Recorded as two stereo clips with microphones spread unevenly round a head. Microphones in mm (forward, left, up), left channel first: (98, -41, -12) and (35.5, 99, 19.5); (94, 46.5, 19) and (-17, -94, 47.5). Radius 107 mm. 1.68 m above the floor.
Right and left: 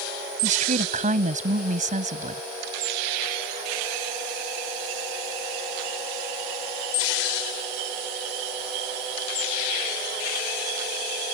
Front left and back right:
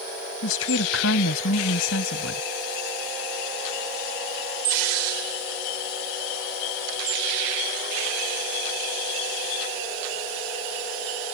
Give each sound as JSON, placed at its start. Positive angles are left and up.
{"t": 0.4, "sound": "a woman speaking", "azimuth_deg": 80}